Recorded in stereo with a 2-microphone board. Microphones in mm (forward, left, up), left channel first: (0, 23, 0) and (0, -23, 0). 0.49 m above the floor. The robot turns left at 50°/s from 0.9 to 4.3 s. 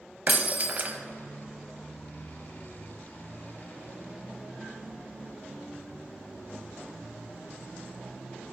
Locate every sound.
0.3 s breaking glass: 40° right (ahead or behind), 0.6 m; by 1.0 s 35° right (ahead or behind), 0.6 m